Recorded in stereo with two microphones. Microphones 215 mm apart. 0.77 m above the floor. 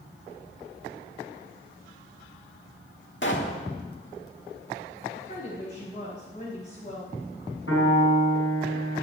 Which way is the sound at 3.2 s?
60° left (ahead or behind).